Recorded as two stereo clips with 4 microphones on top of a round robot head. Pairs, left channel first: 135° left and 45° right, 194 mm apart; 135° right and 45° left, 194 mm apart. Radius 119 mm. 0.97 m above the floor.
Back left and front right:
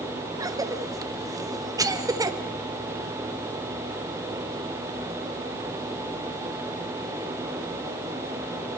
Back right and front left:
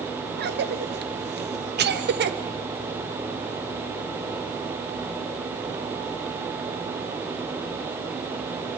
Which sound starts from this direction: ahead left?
A cough, at 0.4 s.